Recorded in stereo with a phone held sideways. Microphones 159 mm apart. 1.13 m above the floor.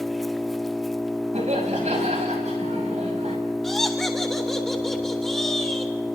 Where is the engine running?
Centre (ahead or behind), 0.8 m.